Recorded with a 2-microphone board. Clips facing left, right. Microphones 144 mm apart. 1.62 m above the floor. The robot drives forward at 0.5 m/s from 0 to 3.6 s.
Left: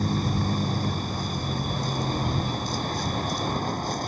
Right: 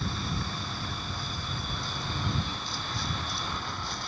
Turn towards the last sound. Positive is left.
turn(degrees=45)  # may be behind; listen again after turning